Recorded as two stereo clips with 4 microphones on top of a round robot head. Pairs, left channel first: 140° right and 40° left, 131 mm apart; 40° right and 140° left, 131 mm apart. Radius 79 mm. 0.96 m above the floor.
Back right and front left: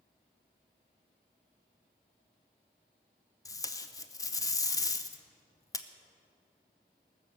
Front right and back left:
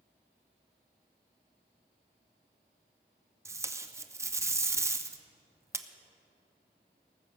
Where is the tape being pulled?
175° right, 0.8 m.